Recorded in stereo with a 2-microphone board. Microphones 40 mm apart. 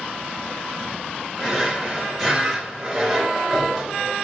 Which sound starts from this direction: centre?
A drawer, at 1.4 s.